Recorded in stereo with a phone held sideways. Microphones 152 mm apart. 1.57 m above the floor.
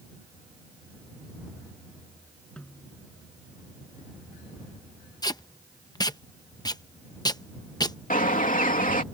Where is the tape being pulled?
25° left (ahead or behind).